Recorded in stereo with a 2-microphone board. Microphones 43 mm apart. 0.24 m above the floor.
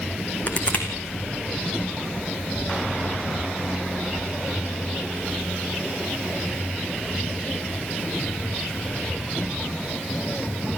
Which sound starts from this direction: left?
Crushing, at 0.5 s.